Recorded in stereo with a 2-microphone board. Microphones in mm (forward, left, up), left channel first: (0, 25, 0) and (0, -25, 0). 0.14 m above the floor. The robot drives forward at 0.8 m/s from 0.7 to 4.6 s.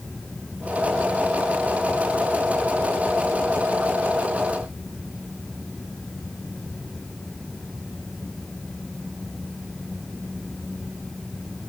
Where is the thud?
No thud in this recording.